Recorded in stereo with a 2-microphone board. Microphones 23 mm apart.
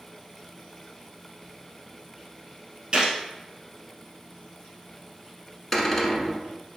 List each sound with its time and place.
2.9 s a gunshot: 40° right (ahead or behind), 1.6 m
5.7 s a cupboard door: 5° left (ahead or behind), 1.2 m